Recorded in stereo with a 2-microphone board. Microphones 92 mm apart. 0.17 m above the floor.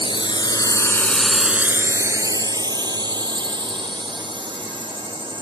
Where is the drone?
65° left (ahead or behind); by 5.4 s 65° right (ahead or behind).